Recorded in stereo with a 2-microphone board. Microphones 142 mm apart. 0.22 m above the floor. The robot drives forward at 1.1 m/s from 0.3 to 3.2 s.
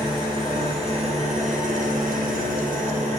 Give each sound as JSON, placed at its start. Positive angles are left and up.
{"t": 0.0, "sound": "an engine running", "side_deg": -35, "distance_m": 2.5}